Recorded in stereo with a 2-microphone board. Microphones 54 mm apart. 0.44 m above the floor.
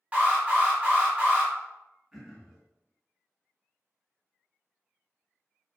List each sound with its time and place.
0.1 s an alarm: 25° right (ahead or behind), 1.2 m
2.1 s throat clearing: 10° right (ahead or behind), 1.0 m